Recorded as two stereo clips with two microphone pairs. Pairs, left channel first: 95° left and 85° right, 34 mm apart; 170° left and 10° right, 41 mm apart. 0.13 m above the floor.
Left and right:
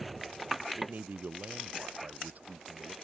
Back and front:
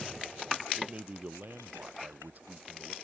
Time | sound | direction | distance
0.8 | a man speaking | 55° right | ?